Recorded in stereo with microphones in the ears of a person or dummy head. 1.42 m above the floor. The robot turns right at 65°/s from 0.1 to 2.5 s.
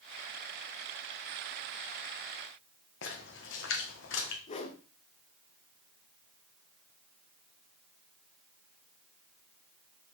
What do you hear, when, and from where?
3.0 s a splash: 65° left (ahead or behind), 1.4 m
4.5 s a whoosh: 40° left (ahead or behind), 1.1 m